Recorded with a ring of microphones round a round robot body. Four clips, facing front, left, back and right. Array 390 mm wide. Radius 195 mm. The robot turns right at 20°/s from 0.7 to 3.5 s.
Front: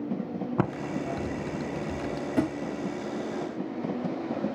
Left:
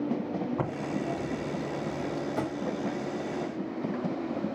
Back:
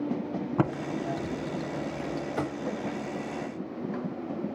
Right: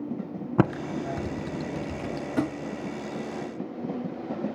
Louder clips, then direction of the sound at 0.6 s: Right 5 dB, back 1 dB; 90° right.